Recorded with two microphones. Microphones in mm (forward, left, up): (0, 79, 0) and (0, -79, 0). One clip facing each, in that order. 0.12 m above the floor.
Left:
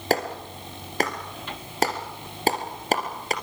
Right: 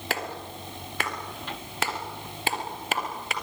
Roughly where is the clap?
Left.